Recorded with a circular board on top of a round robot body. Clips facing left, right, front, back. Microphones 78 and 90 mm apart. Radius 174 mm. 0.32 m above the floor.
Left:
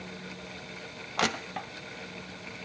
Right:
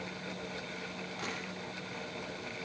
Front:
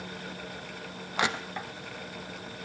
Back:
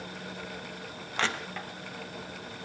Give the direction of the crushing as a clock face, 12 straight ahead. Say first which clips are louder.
Left 13 dB, front 2 dB; 9 o'clock.